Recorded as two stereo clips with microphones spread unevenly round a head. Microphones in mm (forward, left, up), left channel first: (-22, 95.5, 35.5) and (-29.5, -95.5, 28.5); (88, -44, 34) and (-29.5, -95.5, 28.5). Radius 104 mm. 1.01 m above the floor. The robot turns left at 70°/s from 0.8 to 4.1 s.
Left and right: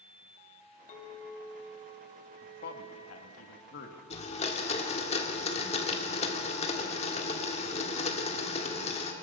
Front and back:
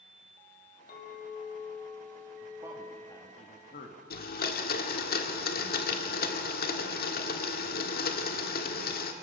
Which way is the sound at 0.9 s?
35° left.